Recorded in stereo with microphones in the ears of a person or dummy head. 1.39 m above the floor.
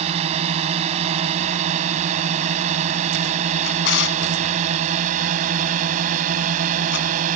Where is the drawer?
70° left (ahead or behind).